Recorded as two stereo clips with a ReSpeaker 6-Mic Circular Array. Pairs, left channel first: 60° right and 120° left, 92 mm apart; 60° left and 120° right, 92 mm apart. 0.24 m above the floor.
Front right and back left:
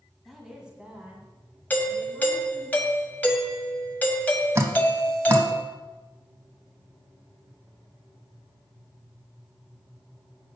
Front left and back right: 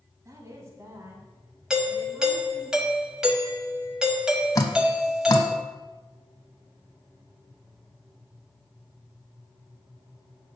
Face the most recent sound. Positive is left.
turn(degrees=80)